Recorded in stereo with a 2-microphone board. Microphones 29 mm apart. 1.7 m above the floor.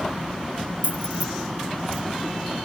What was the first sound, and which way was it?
Keys jangling, 55° right (ahead or behind).